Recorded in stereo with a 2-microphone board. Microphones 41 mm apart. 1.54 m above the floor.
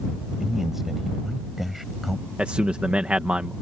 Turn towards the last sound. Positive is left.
turn(degrees=-30)  # may be behind; listen again after turning